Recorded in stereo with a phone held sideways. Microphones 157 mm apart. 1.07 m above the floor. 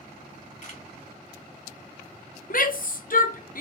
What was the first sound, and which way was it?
A camera shutter, 55° left (ahead or behind).